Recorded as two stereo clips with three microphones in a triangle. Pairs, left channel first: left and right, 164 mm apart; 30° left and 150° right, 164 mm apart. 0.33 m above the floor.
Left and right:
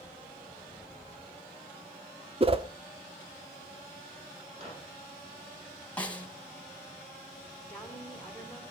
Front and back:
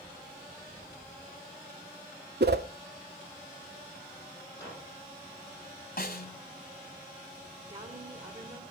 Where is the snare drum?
10° left, 1.8 m.